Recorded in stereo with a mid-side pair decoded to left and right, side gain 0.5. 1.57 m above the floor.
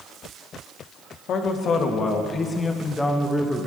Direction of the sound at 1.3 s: 60° left.